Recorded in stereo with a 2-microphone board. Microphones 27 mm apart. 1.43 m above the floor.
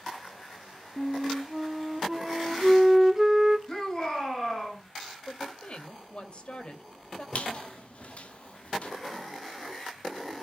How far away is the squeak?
About 1.7 m.